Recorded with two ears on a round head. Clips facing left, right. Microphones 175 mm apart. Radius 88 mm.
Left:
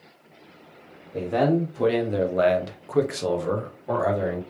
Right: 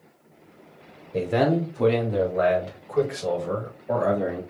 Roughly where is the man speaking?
Right.